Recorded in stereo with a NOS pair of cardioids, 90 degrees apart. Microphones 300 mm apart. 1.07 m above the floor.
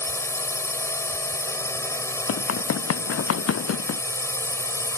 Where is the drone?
10° left.